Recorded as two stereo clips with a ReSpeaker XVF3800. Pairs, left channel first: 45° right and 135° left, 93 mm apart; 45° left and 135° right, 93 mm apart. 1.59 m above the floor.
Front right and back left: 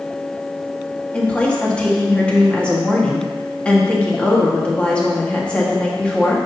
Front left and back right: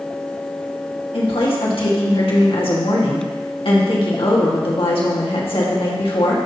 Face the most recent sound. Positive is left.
turn(degrees=30)